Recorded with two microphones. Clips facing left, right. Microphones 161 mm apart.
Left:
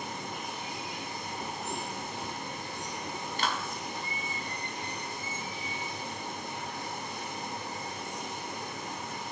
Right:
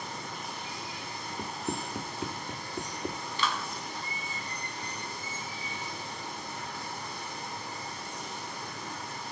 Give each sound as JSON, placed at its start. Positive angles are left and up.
{"t": 0.0, "sound": "running water", "side_deg": 20, "distance_m": 2.5}
{"t": 1.4, "sound": "running footsteps", "side_deg": -65, "distance_m": 1.3}
{"t": 3.4, "sound": "a clap", "side_deg": 50, "distance_m": 1.3}